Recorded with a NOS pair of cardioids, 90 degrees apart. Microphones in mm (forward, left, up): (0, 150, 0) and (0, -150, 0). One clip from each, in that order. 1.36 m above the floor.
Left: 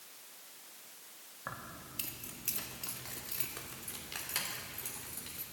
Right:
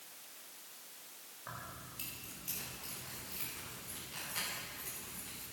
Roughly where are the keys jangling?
Ahead left.